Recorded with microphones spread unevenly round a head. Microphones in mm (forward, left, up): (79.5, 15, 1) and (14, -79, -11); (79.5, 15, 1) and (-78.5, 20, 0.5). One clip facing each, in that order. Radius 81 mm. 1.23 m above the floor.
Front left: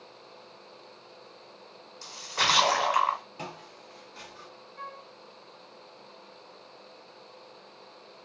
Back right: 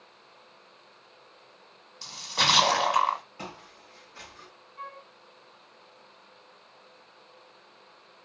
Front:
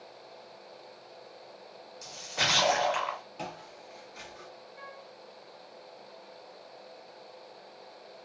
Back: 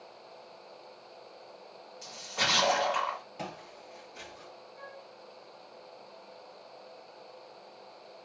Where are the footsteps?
100° left, 1.6 m; by 4.5 s 60° left, 1.2 m.